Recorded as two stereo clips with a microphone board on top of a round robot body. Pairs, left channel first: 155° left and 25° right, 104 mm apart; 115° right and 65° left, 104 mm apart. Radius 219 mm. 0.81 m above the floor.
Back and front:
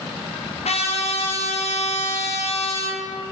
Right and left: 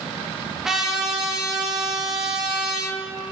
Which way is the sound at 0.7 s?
155° left.